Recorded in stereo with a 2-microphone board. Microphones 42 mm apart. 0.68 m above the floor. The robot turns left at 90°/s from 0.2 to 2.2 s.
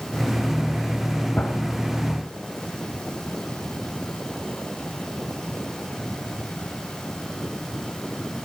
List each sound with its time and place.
1.4 s a gunshot: 40° left (ahead or behind), 1.7 m; by 1.6 s 60° left (ahead or behind), 1.7 m